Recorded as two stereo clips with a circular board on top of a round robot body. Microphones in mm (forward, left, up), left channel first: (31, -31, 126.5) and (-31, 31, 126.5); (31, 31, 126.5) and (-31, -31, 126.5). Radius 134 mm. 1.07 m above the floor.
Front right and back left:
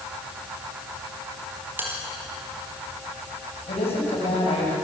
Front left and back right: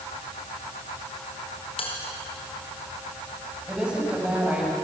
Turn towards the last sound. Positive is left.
turn(degrees=-55)